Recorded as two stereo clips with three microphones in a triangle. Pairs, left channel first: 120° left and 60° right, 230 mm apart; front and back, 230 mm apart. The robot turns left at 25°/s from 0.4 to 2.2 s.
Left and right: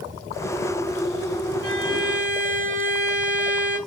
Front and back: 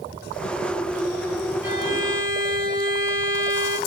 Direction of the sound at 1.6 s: 95° left.